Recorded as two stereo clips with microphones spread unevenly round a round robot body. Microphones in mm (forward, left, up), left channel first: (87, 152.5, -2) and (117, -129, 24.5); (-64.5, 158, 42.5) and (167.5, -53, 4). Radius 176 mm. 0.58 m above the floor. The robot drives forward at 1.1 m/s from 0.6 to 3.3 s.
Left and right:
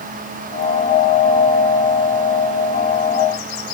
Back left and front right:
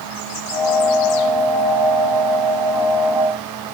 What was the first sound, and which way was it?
Only background noise.